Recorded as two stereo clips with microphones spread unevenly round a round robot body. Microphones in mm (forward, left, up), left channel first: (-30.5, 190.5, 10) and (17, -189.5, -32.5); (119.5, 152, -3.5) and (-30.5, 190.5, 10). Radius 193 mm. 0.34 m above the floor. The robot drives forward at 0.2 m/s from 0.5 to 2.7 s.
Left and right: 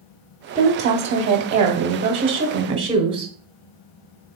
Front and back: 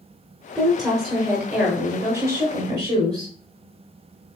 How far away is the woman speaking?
About 1.0 m.